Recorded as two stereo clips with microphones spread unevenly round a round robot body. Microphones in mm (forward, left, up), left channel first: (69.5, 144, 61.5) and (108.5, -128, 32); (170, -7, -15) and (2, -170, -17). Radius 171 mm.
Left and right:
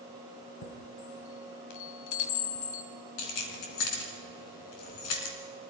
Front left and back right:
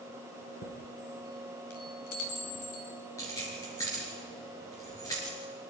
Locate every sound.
0.6 s a chime: 90° left, 1.9 m
3.2 s keys jangling: 125° left, 3 m